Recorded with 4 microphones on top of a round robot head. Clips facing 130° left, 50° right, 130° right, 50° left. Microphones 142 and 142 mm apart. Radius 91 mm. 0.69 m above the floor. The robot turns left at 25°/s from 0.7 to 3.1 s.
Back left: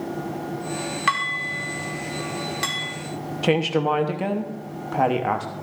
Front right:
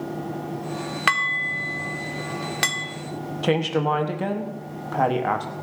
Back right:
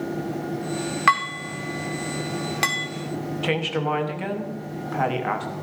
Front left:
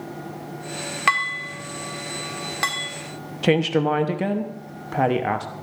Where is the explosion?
No explosion in this recording.